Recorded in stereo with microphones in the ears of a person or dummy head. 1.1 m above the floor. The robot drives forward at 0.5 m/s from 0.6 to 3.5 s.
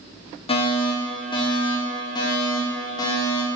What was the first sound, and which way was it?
A fire alarm, 30° left (ahead or behind).